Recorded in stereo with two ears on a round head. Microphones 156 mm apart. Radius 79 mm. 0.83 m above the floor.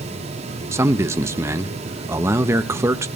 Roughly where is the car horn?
No car horn in this recording.